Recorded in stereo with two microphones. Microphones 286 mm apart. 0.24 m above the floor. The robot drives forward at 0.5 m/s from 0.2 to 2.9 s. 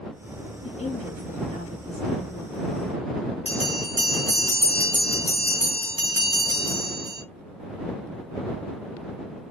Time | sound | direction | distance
0.6 | a woman speaking | 25° left (ahead or behind) | 1.5 m
3.5 | a bell | 20° left (ahead or behind) | 1.7 m